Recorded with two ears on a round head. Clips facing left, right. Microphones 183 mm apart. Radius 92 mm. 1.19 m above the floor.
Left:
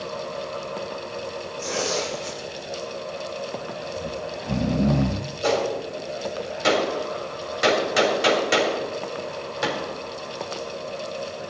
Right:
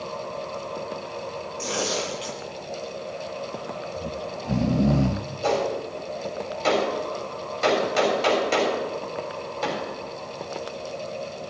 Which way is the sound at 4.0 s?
5° right (ahead or behind).